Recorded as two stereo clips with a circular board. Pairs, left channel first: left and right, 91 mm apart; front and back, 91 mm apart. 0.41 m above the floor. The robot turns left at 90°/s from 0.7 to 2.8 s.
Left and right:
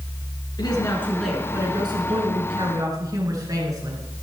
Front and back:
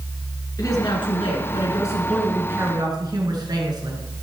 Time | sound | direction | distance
0.6 | a woman speaking | 50° left | 5 m